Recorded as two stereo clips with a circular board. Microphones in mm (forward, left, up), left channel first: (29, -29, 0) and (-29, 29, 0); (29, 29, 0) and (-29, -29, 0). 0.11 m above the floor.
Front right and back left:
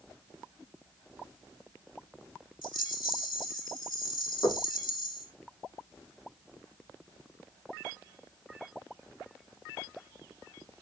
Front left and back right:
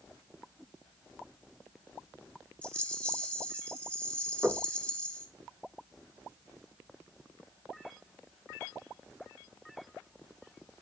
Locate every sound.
2.6 s a rattle: 30° right, 2.0 m
4.4 s knocking: 55° right, 8 m